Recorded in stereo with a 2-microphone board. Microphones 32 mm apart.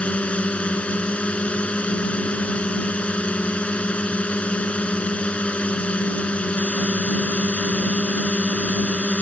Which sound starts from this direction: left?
A drone, at 0.0 s.